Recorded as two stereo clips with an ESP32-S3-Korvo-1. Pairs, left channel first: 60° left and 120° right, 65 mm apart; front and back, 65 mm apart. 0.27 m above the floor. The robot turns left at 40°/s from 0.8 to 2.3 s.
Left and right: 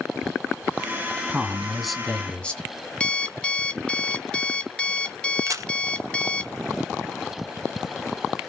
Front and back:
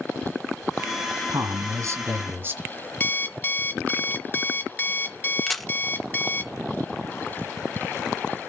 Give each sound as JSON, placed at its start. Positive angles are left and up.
{"t": 1.3, "sound": "a man speaking", "azimuth_deg": 170, "distance_m": 1.9}
{"t": 3.0, "sound": "an alarm clock", "azimuth_deg": 5, "distance_m": 0.7}
{"t": 5.5, "sound": "a camera shutter", "azimuth_deg": -85, "distance_m": 1.5}